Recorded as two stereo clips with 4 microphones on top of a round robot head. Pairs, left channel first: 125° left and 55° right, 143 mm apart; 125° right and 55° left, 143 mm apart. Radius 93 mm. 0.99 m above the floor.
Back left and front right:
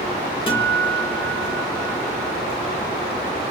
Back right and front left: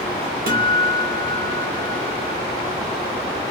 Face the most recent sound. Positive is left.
turn(degrees=65)